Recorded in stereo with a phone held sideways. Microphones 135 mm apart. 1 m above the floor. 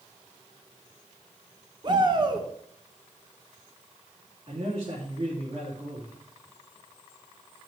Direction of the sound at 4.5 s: 45° right (ahead or behind).